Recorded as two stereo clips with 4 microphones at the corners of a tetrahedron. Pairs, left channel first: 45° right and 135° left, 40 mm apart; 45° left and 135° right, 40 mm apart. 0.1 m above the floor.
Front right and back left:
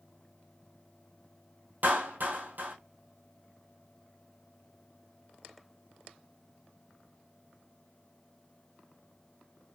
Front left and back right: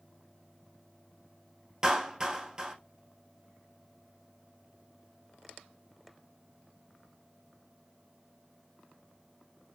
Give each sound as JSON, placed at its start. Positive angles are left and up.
{"t": 1.8, "sound": "a clap", "azimuth_deg": 155, "distance_m": 1.7}